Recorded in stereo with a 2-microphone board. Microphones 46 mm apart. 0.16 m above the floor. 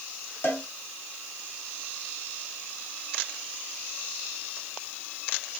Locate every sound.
0.4 s a cowbell: 50° left (ahead or behind), 4 m